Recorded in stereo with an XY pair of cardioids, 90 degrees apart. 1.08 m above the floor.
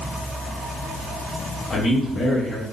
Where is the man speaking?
55° left, 1.3 m.